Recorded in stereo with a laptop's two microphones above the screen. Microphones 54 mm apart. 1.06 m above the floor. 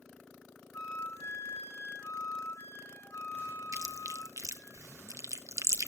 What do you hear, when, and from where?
0.7 s a flute: 65° left (ahead or behind), 2 m
3.7 s chewing: 65° right (ahead or behind), 1.0 m